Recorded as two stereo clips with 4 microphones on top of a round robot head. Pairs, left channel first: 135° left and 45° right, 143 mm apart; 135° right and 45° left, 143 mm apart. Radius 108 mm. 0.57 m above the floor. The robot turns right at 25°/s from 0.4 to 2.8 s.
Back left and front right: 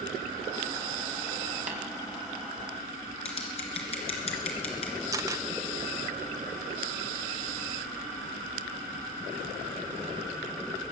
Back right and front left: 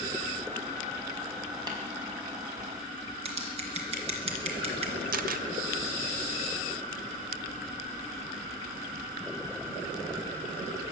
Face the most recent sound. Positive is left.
turn(degrees=25)